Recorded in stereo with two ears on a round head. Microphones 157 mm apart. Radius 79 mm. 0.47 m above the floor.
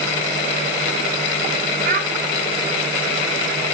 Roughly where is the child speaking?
Right.